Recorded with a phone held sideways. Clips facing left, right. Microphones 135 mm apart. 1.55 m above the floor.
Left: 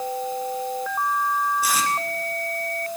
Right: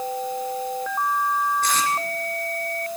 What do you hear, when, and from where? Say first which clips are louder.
1.6 s tape being pulled: even; 10° left (ahead or behind), 3 m